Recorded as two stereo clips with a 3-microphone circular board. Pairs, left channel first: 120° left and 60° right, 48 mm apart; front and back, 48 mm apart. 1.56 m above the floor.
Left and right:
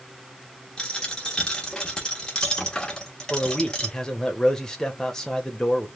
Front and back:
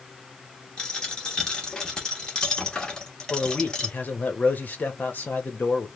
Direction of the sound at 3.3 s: 45° left.